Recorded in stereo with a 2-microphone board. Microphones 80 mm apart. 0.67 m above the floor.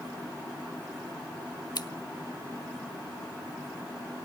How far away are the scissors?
About 0.7 m.